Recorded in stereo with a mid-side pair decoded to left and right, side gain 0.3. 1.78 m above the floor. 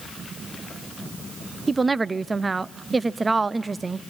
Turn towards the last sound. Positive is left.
turn(degrees=-35)